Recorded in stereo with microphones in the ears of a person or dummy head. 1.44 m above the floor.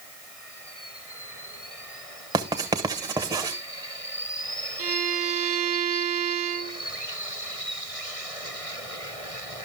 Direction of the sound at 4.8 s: 45° right (ahead or behind).